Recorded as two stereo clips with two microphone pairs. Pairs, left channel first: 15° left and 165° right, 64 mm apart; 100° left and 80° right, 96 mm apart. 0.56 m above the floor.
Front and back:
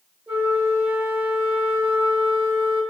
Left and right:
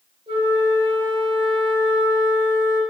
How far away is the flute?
About 1.4 m.